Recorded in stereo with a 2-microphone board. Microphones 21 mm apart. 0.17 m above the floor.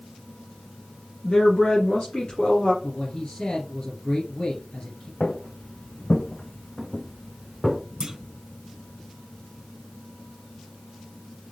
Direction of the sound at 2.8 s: 60° left (ahead or behind).